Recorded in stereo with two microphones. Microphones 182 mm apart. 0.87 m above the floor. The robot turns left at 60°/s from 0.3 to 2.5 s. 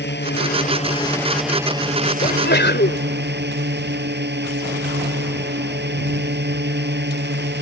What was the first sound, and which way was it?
A drone, 65° left.